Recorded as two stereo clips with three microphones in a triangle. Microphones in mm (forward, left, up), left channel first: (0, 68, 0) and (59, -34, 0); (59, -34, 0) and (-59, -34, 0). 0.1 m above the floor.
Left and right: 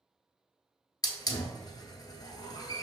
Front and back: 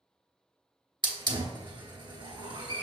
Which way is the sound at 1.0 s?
155° left.